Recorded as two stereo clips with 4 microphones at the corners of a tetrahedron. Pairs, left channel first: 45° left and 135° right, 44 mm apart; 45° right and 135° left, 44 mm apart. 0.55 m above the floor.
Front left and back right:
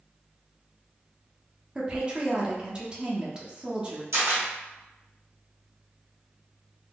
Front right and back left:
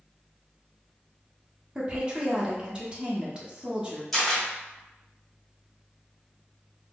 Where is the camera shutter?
135° right, 1.6 m.